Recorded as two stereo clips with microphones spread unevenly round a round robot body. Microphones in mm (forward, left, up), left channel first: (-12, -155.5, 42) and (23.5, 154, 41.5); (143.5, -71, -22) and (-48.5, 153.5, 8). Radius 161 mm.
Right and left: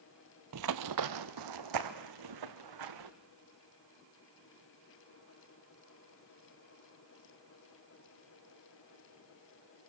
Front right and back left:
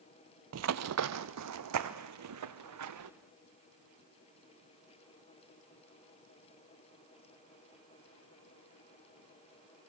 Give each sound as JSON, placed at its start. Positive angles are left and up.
{"t": 0.5, "sound": "running footsteps", "azimuth_deg": 110, "distance_m": 0.7}